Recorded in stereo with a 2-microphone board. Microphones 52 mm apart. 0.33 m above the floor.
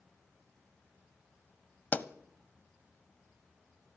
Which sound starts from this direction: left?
A pop, at 1.9 s.